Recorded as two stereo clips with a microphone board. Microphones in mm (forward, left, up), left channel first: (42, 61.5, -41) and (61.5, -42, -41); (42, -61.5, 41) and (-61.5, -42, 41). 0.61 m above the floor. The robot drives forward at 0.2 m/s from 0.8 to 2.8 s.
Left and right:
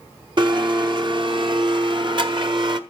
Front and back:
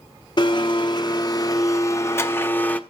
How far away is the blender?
About 0.8 m.